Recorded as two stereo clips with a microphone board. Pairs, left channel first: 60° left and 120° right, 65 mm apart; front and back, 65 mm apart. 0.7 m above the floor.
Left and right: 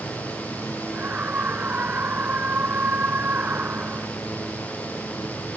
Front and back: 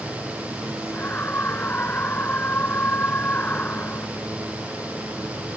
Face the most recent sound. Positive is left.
turn(degrees=-60)